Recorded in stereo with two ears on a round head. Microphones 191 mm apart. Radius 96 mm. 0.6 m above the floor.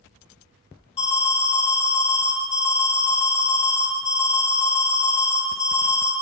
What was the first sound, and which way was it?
An alarm, 30° left (ahead or behind).